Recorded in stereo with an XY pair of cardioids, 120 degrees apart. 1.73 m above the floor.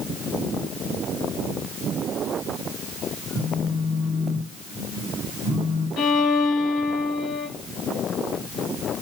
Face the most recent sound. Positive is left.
turn(degrees=65)